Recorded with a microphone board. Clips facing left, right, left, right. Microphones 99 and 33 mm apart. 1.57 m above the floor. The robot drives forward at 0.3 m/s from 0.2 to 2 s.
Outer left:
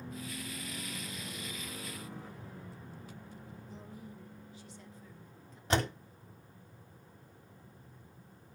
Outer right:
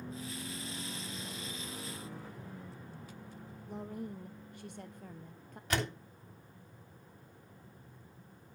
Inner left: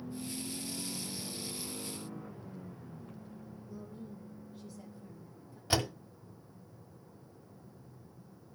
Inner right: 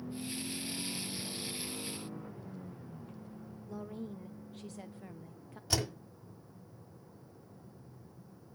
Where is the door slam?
30° left (ahead or behind), 3 m.